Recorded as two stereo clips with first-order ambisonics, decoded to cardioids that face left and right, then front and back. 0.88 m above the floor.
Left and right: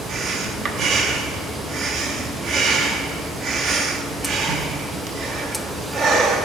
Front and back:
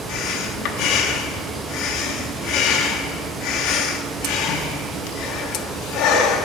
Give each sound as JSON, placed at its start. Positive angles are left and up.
{"t": 0.1, "sound": "breathing", "azimuth_deg": -35, "distance_m": 1.0}